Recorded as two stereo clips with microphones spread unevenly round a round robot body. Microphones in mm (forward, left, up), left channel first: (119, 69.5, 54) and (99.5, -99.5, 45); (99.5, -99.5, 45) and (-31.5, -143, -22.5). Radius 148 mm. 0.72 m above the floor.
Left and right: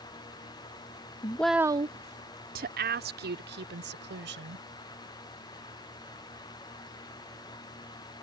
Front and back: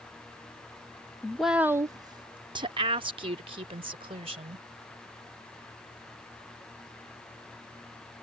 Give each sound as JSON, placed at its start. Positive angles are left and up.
{"t": 1.2, "sound": "a woman speaking", "azimuth_deg": 130}